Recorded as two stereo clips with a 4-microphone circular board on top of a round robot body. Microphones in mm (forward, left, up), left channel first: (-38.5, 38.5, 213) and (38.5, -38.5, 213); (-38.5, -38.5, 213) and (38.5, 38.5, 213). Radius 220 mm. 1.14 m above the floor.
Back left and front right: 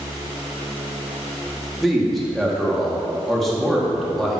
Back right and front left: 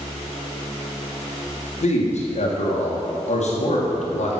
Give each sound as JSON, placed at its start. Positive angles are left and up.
{"t": 1.8, "sound": "a man speaking", "azimuth_deg": -135, "distance_m": 1.9}